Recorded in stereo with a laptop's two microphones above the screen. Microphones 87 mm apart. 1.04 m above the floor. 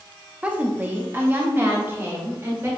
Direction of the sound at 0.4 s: 15° right (ahead or behind).